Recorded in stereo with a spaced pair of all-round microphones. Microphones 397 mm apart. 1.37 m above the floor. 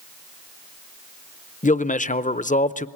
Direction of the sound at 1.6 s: 20° left (ahead or behind).